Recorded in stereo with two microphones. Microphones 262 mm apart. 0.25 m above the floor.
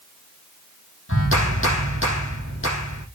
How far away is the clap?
About 6 m.